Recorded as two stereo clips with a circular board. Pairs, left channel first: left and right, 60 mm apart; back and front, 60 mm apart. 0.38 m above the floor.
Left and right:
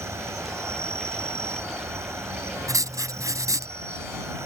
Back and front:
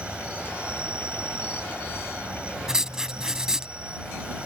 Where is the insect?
65° right.